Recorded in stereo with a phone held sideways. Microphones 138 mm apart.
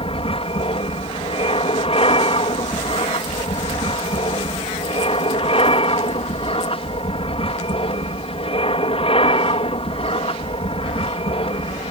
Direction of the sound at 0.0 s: 45° left (ahead or behind).